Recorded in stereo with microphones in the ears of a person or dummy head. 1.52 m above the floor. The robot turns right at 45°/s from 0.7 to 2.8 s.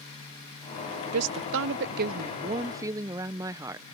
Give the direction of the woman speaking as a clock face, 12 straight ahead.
3 o'clock.